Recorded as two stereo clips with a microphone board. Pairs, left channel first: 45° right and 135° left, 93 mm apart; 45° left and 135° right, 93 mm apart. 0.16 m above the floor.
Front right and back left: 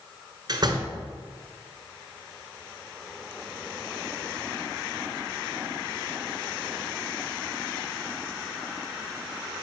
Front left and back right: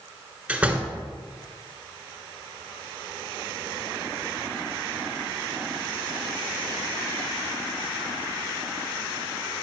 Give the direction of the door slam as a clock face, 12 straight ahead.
7 o'clock.